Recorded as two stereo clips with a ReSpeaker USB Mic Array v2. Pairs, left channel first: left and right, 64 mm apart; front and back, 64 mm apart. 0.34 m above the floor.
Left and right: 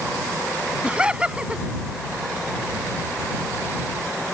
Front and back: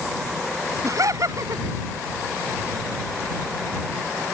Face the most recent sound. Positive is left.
turn(degrees=-165)